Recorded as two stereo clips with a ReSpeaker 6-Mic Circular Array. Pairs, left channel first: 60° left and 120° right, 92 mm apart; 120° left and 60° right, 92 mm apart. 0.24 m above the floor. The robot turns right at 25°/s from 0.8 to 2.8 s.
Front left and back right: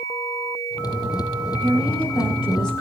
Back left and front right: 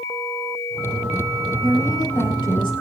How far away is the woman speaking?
About 5.5 m.